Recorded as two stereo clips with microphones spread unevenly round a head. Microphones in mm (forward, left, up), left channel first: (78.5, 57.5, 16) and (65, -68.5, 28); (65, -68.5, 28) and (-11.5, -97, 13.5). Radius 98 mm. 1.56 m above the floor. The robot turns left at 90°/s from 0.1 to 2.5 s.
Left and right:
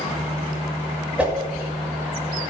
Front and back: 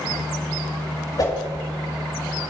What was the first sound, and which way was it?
A whoosh, 15° right.